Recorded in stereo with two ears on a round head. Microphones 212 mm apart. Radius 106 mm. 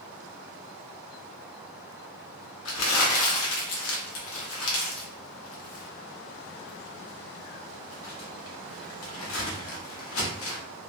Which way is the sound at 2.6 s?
65° left (ahead or behind).